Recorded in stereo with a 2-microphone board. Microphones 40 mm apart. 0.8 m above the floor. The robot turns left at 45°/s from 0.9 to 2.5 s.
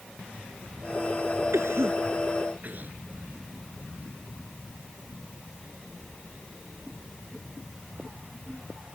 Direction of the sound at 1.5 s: 85° right.